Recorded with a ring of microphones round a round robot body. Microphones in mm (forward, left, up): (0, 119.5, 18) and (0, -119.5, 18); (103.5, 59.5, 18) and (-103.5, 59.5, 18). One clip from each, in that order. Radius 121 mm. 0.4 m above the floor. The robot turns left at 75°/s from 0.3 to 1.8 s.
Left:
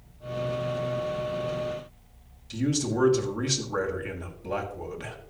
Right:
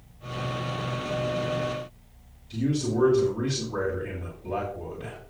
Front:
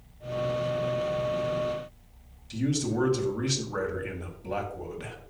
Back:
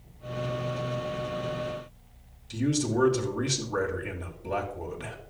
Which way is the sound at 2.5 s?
95° left.